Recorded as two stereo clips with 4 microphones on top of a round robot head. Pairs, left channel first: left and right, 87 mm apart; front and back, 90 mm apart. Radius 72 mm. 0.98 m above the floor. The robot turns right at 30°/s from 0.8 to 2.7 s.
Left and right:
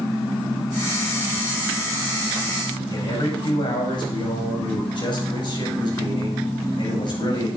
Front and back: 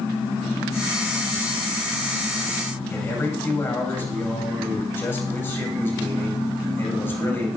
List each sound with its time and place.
2.9 s a man speaking: 65° left, 5.5 m